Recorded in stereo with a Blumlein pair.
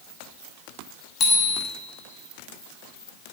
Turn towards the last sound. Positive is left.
turn(degrees=25)